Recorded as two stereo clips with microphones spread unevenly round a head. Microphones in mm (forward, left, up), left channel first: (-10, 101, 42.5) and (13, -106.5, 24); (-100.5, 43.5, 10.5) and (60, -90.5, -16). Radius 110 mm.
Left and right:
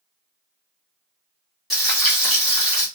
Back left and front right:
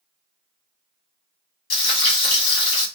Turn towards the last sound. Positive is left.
turn(degrees=-175)